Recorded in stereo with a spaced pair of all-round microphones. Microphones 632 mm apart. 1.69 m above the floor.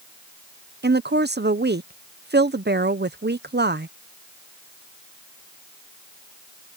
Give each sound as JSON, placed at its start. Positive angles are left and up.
{"t": 0.8, "sound": "a woman speaking", "side_deg": -15}